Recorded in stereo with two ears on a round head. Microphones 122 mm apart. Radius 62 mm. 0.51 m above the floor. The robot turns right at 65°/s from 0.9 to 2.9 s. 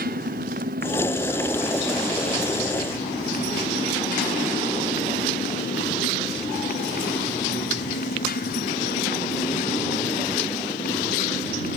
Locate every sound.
0.0 s a motorcycle: 65° right; by 11.8 s 65° left